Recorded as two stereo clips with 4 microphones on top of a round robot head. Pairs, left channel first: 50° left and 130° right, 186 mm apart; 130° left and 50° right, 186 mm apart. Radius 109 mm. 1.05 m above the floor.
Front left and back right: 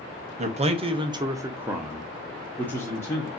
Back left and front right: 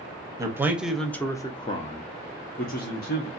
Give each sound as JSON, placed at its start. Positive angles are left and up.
{"t": 0.4, "sound": "a man speaking", "azimuth_deg": -110, "distance_m": 0.8}